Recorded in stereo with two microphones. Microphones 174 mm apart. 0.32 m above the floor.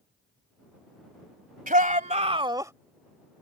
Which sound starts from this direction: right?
A shout, at 1.7 s.